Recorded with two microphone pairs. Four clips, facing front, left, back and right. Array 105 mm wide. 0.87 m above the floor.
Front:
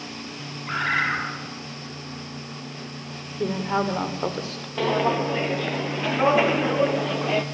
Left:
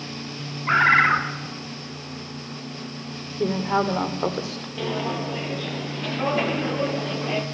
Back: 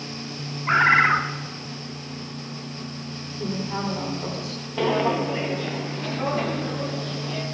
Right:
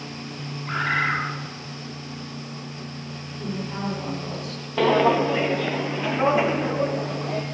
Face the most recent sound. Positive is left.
turn(degrees=-5)